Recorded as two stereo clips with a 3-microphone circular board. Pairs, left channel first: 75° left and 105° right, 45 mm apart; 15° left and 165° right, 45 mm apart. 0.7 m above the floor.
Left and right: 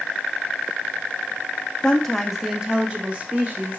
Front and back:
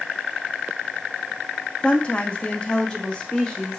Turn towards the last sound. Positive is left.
turn(degrees=-60)